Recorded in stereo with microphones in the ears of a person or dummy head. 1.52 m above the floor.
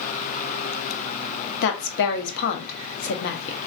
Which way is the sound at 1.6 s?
70° left (ahead or behind).